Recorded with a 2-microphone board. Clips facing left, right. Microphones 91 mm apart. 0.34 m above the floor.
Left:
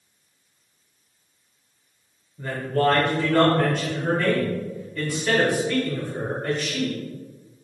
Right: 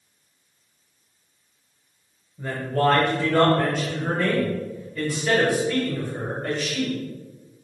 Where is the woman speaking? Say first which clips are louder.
Even; 5° right (ahead or behind), 0.8 m.